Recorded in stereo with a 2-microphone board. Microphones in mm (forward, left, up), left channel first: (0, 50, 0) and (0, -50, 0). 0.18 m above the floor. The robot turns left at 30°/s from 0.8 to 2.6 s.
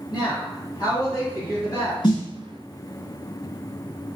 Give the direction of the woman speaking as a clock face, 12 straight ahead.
10 o'clock.